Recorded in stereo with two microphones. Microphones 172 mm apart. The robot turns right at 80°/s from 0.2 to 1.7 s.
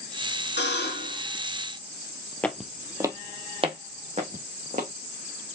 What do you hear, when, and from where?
0.6 s a buzzer: 85° left, 2.5 m; by 1.2 s 140° left, 2.5 m
2.4 s footsteps: 5° left (ahead or behind), 1.0 m; by 4.9 s 45° right (ahead or behind), 2.5 m